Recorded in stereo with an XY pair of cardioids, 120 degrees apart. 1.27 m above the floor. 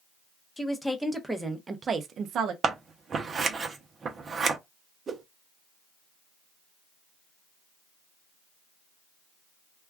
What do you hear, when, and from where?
0.6 s a woman speaking: 10° left, 1.0 m; by 2.5 s 70° right, 0.6 m
2.6 s scissors: 35° right, 0.7 m
5.1 s a whoosh: 35° right, 0.6 m